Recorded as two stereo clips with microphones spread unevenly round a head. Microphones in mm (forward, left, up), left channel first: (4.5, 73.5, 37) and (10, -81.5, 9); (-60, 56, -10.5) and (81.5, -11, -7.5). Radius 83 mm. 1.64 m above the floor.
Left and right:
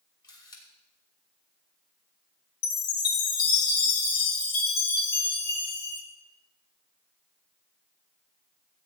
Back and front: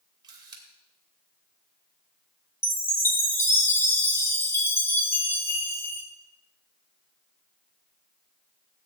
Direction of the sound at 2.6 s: 80° left.